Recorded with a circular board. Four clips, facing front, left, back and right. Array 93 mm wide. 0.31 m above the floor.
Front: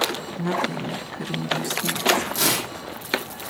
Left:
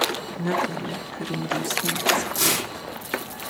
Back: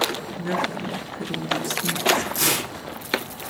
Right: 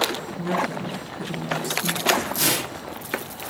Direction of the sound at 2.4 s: 5° right.